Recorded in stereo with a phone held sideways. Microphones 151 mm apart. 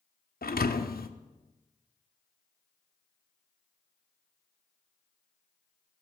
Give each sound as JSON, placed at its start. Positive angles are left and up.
{"t": 0.4, "sound": "a thud", "side_deg": 80, "distance_m": 0.7}